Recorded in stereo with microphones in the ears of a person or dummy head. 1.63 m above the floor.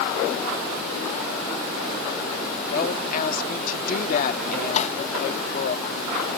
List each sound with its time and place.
2.7 s a woman speaking: 50° left (ahead or behind)
4.8 s a snare drum: 40° left (ahead or behind)